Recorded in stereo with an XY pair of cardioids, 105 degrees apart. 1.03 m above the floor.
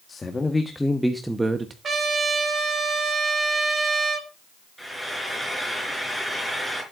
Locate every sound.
0.1 s a man speaking: 30° left, 1.6 m; by 1.7 s 35° right, 1.1 m
1.8 s a trumpet: 40° right, 3 m
4.8 s frying: 5° right, 4.5 m